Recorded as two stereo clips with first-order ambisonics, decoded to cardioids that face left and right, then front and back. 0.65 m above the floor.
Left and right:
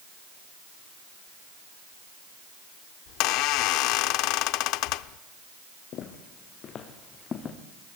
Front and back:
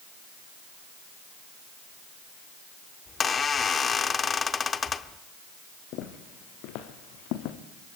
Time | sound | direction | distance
3.1 | a squeak | 70° left | 0.7 m
5.9 | footsteps | 35° left | 3 m